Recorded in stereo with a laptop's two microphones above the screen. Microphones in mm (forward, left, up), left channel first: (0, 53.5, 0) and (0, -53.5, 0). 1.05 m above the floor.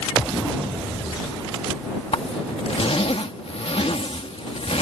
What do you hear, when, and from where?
2.1 s a zipper: 65° left (ahead or behind)